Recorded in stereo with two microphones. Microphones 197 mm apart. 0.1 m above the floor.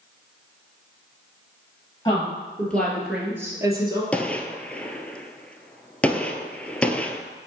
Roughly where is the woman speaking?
Centre.